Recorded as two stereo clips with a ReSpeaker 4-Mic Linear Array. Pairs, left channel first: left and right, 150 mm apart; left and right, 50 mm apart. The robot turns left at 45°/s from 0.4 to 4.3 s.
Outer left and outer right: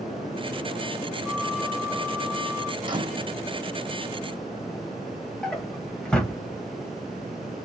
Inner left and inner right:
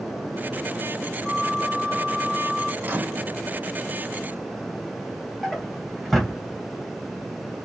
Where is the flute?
Straight behind, 1.1 m; by 2.7 s 110° left, 1.1 m.